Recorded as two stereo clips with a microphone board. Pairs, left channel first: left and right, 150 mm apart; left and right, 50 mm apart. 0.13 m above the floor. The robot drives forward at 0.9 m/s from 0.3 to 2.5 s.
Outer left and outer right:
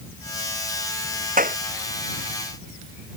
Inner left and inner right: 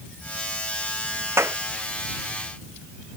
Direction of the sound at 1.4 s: 65° right (ahead or behind).